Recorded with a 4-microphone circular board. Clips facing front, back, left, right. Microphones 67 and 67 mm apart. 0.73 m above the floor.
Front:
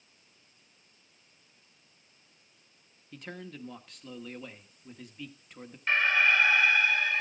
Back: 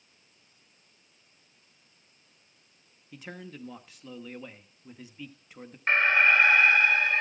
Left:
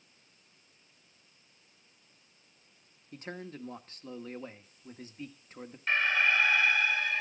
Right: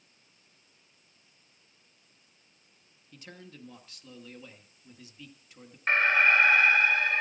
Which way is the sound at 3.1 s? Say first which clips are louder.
Even, left 7 dB; 95° left.